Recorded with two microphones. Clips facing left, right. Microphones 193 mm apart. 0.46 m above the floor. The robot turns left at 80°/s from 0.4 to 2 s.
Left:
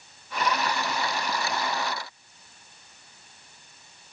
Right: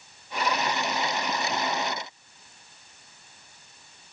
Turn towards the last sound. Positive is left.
No sound to turn to.